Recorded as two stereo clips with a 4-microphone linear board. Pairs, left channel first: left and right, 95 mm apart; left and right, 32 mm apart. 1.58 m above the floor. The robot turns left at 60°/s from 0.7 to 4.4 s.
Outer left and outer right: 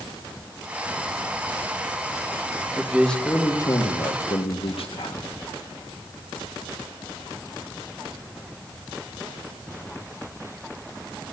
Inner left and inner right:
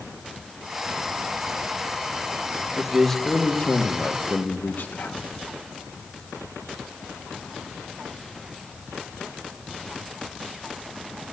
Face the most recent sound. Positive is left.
turn(degrees=95)